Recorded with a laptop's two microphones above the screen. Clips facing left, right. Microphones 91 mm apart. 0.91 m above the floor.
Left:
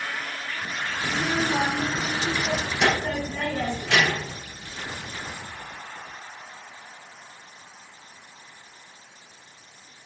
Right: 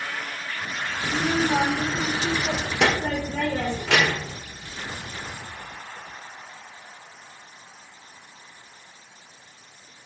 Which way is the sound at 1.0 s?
80° right.